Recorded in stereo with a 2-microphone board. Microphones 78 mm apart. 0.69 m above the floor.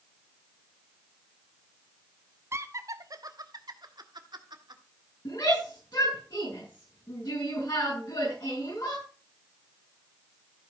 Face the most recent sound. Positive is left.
turn(degrees=60)  # may be behind; listen again after turning